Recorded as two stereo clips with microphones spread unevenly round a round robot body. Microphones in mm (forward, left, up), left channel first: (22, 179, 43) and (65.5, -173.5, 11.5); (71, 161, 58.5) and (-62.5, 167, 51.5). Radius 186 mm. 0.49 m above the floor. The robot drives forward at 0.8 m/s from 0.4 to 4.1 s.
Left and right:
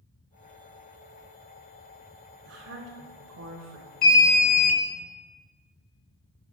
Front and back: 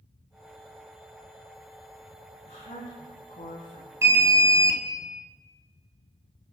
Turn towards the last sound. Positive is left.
turn(degrees=145)